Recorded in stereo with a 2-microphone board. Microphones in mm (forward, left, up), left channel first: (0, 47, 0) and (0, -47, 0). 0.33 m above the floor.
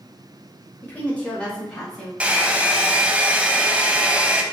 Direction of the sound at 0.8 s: 20° left (ahead or behind).